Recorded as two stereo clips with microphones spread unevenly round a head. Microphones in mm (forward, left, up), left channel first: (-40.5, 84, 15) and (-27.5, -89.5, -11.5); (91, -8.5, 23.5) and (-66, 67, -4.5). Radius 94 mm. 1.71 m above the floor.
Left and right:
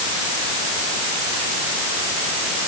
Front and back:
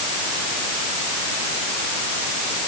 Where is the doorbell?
No doorbell in this recording.